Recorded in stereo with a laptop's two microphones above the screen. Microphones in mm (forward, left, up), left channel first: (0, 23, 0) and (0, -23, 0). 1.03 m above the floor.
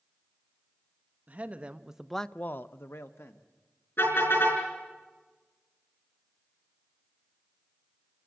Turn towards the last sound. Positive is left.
turn(degrees=60)  # may be behind; listen again after turning